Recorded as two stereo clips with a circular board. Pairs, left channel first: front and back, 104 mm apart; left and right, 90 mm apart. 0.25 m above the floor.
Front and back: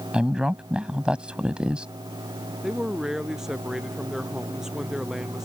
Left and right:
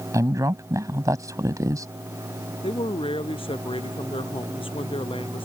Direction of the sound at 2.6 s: 95° left.